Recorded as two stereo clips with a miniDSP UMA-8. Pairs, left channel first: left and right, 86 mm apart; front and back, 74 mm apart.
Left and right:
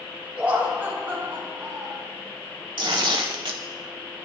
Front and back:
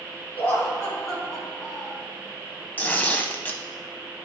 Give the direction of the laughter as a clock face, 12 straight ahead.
1 o'clock.